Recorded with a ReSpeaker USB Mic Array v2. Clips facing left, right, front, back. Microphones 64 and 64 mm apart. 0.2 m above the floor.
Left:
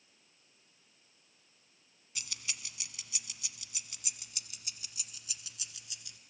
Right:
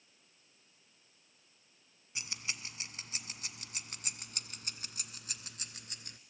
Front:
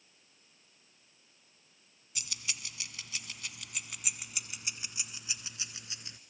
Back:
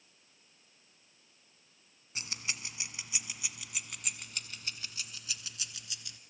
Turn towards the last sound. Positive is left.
turn(degrees=-55)